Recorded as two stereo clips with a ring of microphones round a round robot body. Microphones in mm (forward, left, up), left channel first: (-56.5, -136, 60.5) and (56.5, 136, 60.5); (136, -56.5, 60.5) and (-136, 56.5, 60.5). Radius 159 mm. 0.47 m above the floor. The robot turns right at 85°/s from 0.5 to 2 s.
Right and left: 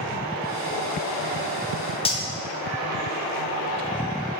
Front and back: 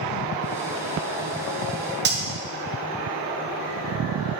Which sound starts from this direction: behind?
Cutlery clinking, at 2.0 s.